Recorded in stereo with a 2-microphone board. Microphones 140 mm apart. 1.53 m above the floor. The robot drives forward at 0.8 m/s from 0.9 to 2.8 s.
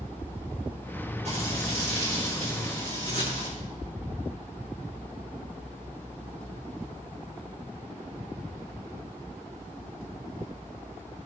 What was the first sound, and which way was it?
Frying, 50° right (ahead or behind).